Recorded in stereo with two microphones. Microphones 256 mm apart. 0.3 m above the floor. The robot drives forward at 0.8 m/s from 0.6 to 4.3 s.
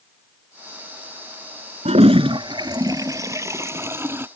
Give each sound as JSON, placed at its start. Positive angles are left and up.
{"t": 1.9, "sound": "a toilet flushing", "side_deg": -25}